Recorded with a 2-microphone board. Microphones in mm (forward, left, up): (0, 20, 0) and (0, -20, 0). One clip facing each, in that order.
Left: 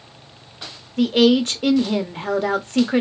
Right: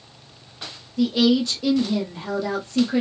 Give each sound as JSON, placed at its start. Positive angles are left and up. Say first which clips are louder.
{"t": 1.0, "sound": "a woman speaking", "louder": "left 3 dB", "side_deg": 50, "distance_m": 0.7}